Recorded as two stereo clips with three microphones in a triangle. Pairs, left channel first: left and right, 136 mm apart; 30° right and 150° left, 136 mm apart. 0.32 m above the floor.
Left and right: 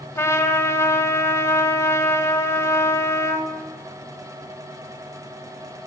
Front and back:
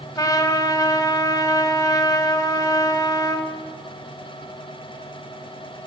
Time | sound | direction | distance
0.1 | a trumpet | 25° left | 1.2 m